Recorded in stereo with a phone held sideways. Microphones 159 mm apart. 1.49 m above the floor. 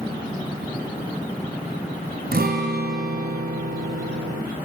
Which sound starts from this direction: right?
A guitar, at 2.3 s.